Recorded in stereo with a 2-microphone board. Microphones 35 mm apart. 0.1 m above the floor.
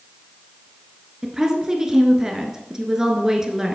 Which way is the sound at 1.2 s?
15° right (ahead or behind).